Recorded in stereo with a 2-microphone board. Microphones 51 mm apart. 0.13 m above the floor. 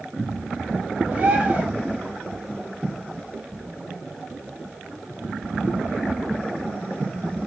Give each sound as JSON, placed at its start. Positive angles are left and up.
{"t": 1.1, "sound": "a bird", "side_deg": -35, "distance_m": 1.9}